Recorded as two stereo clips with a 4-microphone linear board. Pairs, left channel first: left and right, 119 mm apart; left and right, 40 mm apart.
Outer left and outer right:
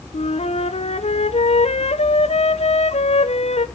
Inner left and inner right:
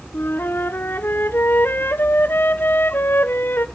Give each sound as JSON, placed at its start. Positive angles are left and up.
{"t": 0.1, "sound": "a flute", "side_deg": 65, "distance_m": 0.7}